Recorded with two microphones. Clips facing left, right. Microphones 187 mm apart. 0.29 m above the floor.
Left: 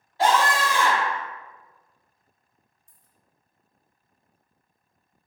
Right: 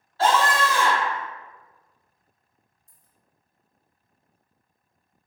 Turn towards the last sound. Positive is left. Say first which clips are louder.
# even
turn(degrees=-40)  # may be behind; listen again after turning